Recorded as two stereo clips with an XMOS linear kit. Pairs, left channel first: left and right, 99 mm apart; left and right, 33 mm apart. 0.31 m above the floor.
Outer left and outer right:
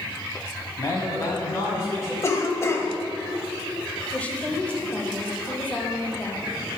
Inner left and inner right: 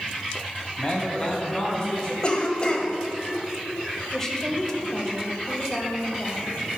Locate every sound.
0.8 s a man speaking: 35° left (ahead or behind), 1.8 m; by 2.1 s 30° left (ahead or behind), 3.5 m
2.2 s a cough: 30° left (ahead or behind), 1.3 m
4.1 s a woman speaking: 15° left (ahead or behind), 0.9 m